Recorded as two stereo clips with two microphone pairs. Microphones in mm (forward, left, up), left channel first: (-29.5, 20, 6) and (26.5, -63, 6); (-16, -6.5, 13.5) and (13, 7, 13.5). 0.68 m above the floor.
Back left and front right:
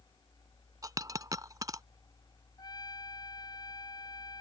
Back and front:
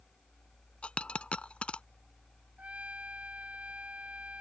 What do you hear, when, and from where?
0.8 s a dropped coin: 105° right
2.6 s a trumpet: 75° left